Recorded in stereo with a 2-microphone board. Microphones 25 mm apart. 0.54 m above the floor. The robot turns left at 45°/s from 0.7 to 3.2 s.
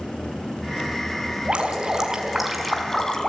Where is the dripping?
130° right, 4.5 m; by 3.3 s 150° left, 4.5 m.